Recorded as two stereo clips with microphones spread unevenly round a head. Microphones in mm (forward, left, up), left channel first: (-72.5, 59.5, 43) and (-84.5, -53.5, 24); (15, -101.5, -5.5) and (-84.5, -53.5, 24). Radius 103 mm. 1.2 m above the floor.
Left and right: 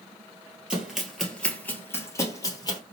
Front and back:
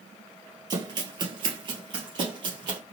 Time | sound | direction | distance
0.7 | running footsteps | 175° left | 1.9 m